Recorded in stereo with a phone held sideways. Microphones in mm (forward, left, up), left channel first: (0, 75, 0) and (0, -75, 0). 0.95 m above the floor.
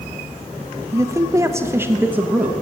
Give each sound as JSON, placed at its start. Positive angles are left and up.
{"t": 0.9, "sound": "a man speaking", "side_deg": -20, "distance_m": 0.7}